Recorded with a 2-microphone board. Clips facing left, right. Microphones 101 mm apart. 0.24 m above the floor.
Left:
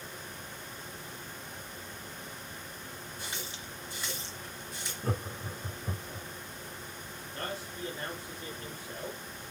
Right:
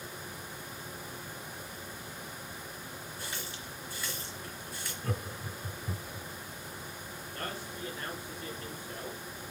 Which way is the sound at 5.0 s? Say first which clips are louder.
Left 3 dB; 30° left (ahead or behind).